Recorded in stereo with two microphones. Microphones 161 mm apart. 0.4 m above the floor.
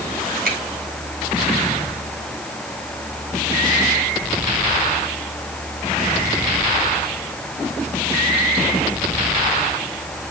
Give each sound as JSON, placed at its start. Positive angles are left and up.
{"t": 0.5, "sound": "a finger snap", "side_deg": -70, "distance_m": 3.0}